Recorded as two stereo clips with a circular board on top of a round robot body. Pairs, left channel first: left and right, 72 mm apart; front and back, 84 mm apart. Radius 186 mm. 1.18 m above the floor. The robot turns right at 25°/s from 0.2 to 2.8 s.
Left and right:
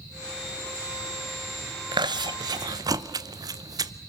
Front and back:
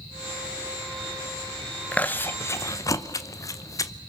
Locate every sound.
1.9 s chewing: 75° right, 0.9 m; by 3.9 s 55° right, 0.9 m